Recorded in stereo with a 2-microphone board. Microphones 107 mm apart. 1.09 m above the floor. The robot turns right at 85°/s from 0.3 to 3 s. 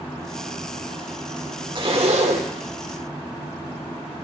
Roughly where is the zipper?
Behind right.